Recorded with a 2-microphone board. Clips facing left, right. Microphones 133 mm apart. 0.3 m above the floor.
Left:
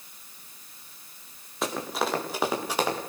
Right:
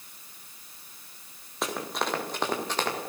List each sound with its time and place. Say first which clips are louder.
1.6 s running footsteps: left 2 dB; centre (ahead or behind), 7 m; by 3.0 s 10° left (ahead or behind), 6.5 m